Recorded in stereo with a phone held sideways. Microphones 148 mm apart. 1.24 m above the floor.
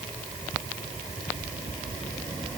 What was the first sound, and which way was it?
Only background noise.